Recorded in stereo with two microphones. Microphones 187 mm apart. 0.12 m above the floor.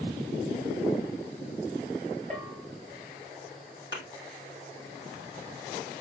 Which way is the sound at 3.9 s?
70° left (ahead or behind).